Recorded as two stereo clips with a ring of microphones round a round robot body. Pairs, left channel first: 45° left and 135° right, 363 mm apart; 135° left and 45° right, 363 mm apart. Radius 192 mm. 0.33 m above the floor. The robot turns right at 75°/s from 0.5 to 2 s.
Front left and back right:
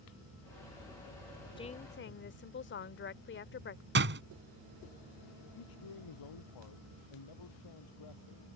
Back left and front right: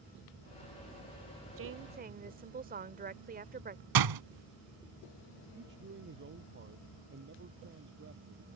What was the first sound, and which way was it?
A woman speaking, 25° right.